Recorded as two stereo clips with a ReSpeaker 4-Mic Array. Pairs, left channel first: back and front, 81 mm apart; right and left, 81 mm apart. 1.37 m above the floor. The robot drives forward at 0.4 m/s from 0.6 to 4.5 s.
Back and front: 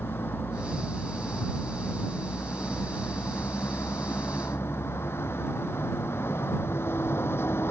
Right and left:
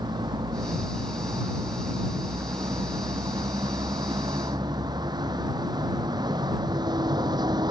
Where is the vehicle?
115° left; by 7.7 s 120° left.